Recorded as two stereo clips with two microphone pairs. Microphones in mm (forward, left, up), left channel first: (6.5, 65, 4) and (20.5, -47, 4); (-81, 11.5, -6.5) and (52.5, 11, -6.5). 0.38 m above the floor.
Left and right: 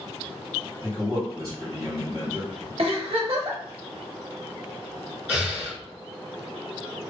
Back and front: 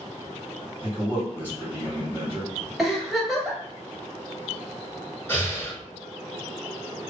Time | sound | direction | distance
0.8 | a man speaking | 70° right | 2.0 m
2.8 | a giggle | 90° right | 0.8 m
5.3 | breathing | 135° right | 1.5 m